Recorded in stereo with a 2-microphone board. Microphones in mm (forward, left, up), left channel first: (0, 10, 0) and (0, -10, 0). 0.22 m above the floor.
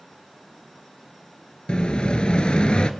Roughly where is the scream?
No scream in this recording.